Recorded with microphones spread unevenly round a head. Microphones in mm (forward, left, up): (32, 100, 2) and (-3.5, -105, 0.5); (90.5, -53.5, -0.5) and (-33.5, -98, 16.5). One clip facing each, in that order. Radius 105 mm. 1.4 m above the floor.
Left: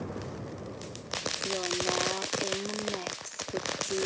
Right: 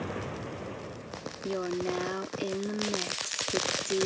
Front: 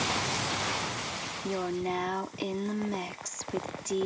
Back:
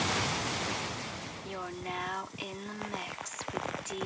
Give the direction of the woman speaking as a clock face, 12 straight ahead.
1 o'clock.